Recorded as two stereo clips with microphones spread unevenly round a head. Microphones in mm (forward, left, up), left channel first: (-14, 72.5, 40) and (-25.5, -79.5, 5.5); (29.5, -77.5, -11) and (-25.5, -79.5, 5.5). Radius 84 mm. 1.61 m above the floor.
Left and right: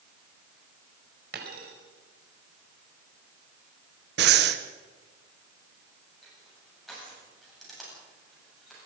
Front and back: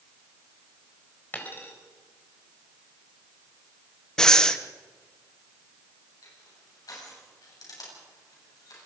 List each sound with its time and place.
1.3 s a dropped coin: 60° right, 4 m
4.2 s breathing: 75° right, 1.5 m
6.2 s crushing: 5° right, 8.5 m